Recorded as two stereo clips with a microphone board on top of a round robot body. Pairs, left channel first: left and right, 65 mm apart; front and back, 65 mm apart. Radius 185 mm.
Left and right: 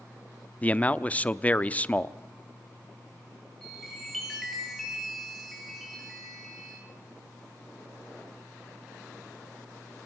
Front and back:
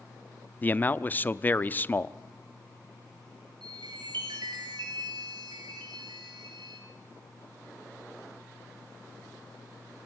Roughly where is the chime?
Behind.